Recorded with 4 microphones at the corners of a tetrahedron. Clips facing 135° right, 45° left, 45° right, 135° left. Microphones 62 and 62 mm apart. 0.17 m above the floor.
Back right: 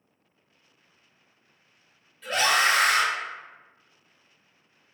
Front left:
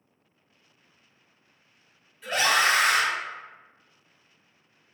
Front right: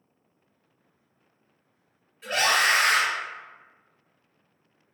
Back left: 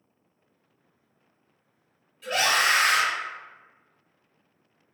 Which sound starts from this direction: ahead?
A scream, at 2.2 s.